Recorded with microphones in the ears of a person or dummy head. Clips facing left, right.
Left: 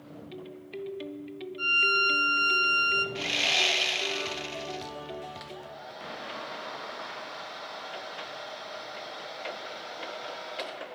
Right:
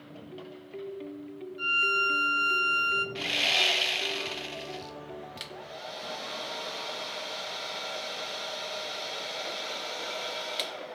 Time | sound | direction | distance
1.6 | a violin | 5° right (ahead or behind) | 1.0 m
3.1 | sawing | 5° right (ahead or behind) | 0.7 m
5.4 | a hair dryer | 45° right (ahead or behind) | 1.1 m